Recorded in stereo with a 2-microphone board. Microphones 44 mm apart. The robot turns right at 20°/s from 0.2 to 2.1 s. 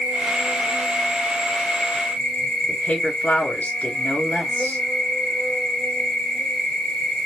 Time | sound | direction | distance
0.0 | an insect | 40° right | 2.5 m
2.7 | a woman speaking | 45° left (ahead or behind) | 2 m